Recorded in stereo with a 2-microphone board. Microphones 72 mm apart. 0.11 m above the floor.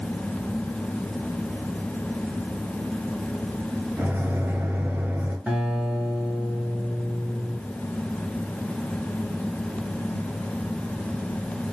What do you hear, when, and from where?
4.0 s a microwave: 25° right (ahead or behind), 1.5 m
5.5 s a guitar: 20° right (ahead or behind), 1.3 m